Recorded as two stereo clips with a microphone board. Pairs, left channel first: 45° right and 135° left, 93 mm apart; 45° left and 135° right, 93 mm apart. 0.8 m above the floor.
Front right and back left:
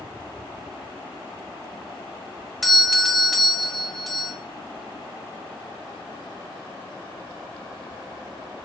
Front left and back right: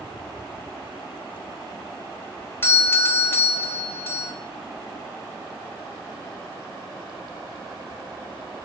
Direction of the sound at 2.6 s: 45° left.